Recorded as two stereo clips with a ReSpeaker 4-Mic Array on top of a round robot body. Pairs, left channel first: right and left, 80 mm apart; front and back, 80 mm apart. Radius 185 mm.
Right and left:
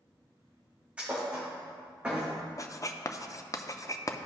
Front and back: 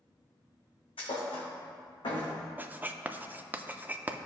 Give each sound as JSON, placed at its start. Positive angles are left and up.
{"t": 1.0, "sound": "a thud", "azimuth_deg": 15, "distance_m": 2.5}
{"t": 2.6, "sound": "writing", "azimuth_deg": -120, "distance_m": 0.8}